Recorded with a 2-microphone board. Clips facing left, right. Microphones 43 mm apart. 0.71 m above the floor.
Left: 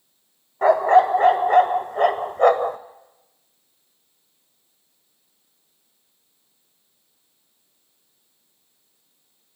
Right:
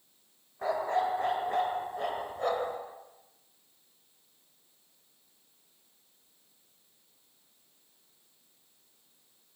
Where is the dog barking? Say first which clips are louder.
Left 15 dB; 70° left (ahead or behind), 1.0 m.